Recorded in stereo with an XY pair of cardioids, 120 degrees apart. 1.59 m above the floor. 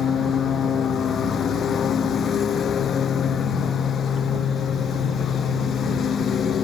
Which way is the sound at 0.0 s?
45° left.